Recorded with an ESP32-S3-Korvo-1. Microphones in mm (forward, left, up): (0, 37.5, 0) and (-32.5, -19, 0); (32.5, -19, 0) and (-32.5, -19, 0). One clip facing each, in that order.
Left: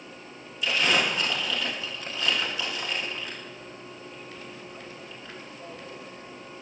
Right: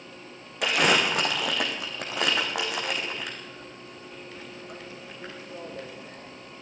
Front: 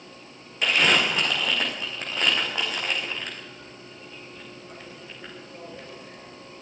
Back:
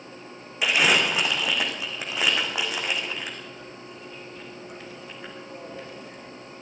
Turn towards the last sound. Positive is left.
turn(degrees=-100)